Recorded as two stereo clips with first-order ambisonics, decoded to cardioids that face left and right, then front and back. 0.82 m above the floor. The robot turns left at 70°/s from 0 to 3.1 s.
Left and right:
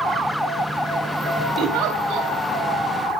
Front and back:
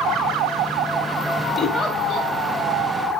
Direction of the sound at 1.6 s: 75° right.